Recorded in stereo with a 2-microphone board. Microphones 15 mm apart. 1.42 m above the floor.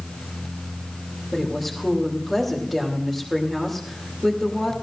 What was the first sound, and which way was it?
A woman speaking, 5° right (ahead or behind).